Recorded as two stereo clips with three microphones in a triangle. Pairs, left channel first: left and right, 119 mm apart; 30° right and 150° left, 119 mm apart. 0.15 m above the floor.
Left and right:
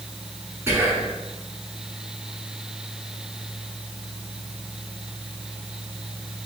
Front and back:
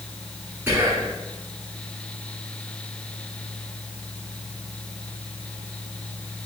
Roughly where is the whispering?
Behind right.